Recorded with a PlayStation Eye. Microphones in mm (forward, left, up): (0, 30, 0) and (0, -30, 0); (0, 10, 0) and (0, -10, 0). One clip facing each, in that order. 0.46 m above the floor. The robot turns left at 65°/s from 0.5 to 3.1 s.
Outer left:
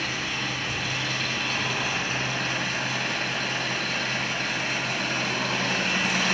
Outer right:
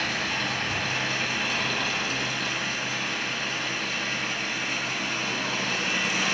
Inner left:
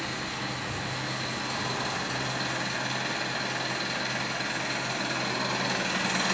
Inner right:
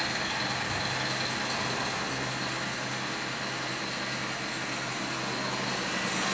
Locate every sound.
0.0 s an engine running: 105° right, 2.5 m; by 6.3 s 85° left, 2.5 m